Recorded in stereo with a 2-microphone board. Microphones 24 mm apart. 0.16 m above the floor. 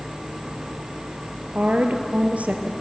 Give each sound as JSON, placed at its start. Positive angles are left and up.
{"t": 1.6, "sound": "a woman speaking", "side_deg": -70, "distance_m": 3.0}